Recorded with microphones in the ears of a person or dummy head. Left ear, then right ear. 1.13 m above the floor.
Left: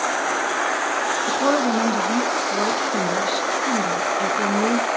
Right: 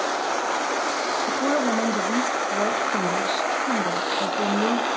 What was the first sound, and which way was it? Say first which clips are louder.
A woman speaking: left 4 dB; 5° left (ahead or behind).